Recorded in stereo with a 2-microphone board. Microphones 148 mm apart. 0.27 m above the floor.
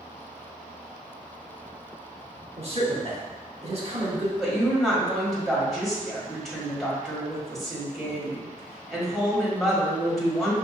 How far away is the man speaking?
About 1.8 m.